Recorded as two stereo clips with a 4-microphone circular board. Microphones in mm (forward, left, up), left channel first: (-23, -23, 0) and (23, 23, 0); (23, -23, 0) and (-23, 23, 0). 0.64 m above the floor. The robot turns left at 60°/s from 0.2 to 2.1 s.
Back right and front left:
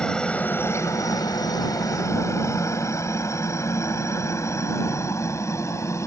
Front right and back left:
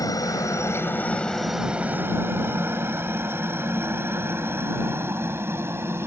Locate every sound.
0.0 s a helicopter: 60° right; by 6.1 s 175° right